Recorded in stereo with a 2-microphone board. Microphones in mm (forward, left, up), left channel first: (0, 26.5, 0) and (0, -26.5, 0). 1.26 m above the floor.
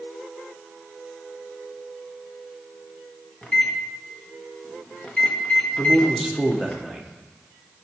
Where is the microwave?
20° left (ahead or behind), 1.1 m.